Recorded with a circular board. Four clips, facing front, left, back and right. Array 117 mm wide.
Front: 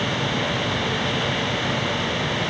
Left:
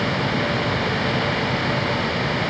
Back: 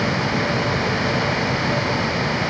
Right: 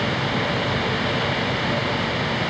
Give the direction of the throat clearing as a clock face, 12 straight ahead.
No throat clearing in this recording.